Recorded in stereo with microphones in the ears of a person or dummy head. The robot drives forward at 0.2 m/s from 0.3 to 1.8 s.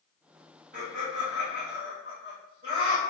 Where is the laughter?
40° right (ahead or behind), 1.7 m; by 3.0 s 35° right (ahead or behind), 1.9 m.